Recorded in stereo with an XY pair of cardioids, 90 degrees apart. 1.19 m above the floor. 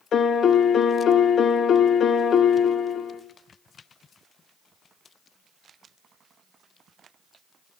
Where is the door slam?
I don't hear a door slam.